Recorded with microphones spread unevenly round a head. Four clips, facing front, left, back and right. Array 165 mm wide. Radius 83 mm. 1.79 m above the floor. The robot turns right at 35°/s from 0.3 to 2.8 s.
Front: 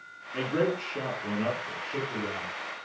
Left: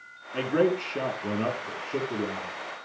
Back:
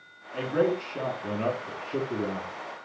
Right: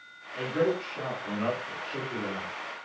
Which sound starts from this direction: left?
A man speaking, at 0.3 s.